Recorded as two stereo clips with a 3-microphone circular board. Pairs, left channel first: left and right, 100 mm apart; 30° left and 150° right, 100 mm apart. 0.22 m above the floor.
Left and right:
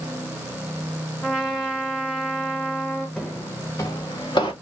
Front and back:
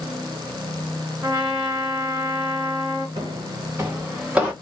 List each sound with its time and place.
1.2 s a trumpet: straight behind, 2.5 m
3.2 s footsteps: 170° left, 1.2 m; by 4.5 s 130° left, 1.6 m